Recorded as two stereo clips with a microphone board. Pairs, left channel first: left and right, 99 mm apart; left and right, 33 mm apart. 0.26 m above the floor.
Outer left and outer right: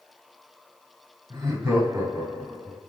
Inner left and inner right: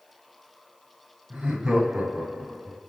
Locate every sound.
1.3 s laughter: 30° right (ahead or behind), 1.5 m; by 2.8 s centre (ahead or behind), 1.1 m